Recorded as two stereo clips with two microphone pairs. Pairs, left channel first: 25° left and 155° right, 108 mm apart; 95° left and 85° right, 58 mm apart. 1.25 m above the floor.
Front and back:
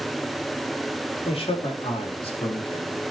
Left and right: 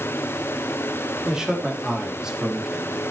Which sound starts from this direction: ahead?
A man speaking, at 1.2 s.